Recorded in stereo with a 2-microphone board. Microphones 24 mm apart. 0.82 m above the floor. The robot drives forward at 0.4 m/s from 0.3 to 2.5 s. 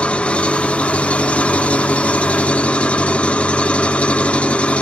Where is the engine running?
60° left (ahead or behind), 1.2 m; by 4.8 s 75° left (ahead or behind), 1.1 m.